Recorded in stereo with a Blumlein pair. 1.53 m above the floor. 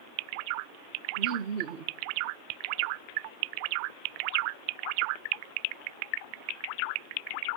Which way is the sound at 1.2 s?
45° right.